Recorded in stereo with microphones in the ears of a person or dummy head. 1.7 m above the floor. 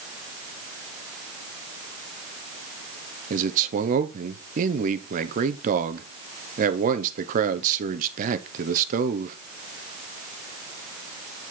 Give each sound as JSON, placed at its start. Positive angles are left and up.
{"t": 3.3, "sound": "a man speaking", "side_deg": -45, "distance_m": 1.1}